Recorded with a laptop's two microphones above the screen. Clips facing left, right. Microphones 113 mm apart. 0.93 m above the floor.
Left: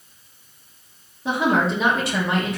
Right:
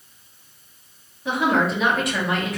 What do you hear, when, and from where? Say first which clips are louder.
1.2 s a woman speaking: even; 30° left (ahead or behind), 1.1 m